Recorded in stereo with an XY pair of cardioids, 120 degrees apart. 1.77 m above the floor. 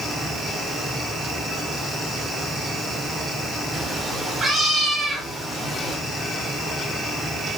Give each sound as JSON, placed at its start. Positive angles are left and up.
{"t": 0.0, "sound": "a fan", "azimuth_deg": -15, "distance_m": 3.5}
{"t": 3.7, "sound": "a cat meowing", "azimuth_deg": -20, "distance_m": 4.5}